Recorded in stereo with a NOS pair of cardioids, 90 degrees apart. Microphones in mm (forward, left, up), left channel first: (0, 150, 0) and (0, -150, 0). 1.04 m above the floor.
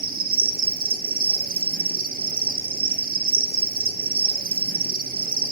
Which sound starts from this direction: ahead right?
An insect, at 0.0 s.